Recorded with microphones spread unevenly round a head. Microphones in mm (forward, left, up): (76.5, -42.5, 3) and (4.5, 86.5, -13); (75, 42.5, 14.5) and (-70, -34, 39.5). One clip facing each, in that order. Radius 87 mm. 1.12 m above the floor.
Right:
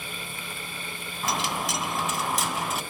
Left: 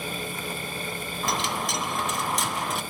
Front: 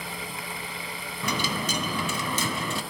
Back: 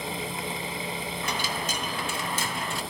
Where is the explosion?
No explosion in this recording.